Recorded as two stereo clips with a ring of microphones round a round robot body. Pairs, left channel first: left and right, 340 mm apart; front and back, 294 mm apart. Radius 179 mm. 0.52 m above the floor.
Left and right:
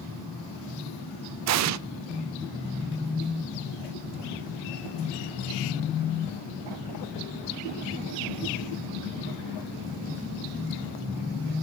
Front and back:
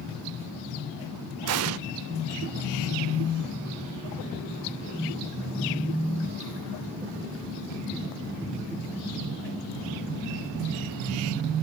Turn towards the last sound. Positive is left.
turn(degrees=-135)